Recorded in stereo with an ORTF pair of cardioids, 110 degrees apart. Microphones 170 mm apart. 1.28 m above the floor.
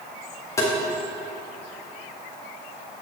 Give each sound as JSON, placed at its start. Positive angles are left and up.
{"t": 0.6, "sound": "tapping", "azimuth_deg": 20, "distance_m": 1.7}